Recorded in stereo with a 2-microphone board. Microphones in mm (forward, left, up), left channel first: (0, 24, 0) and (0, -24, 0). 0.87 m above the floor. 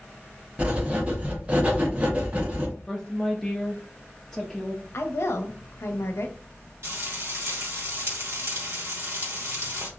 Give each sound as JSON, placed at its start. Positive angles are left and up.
{"t": 0.6, "sound": "writing", "side_deg": -30, "distance_m": 0.8}
{"t": 2.9, "sound": "a woman speaking", "side_deg": 10, "distance_m": 0.5}
{"t": 4.9, "sound": "a woman speaking", "side_deg": 65, "distance_m": 0.6}
{"t": 6.8, "sound": "frying", "side_deg": -70, "distance_m": 1.4}